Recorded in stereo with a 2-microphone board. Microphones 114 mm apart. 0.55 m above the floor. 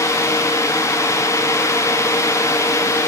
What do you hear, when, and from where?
Only background noise.